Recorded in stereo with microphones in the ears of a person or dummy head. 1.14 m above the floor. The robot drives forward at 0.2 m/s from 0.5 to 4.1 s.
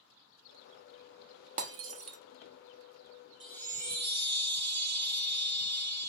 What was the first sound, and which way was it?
Breaking glass, 40° right (ahead or behind).